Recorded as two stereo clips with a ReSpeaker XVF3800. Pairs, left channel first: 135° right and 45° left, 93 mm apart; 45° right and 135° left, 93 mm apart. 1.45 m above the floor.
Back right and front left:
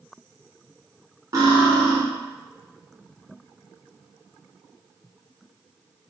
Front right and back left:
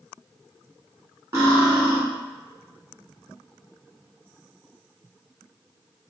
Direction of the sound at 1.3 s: 85° left.